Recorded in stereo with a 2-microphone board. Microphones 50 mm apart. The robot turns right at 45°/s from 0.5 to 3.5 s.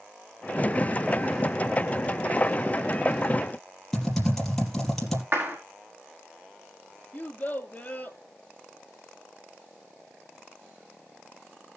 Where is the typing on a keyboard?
5° left (ahead or behind), 4 m.